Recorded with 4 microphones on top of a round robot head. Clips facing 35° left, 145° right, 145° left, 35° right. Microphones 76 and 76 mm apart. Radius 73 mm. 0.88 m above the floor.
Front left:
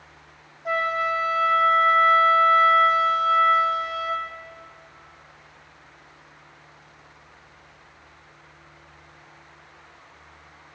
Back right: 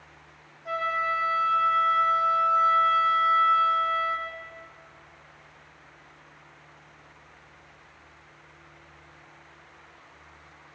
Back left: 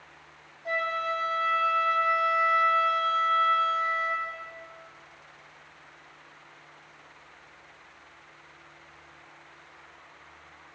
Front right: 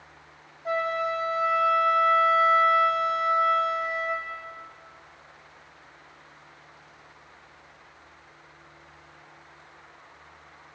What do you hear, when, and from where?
0.7 s a flute: 30° left, 1.0 m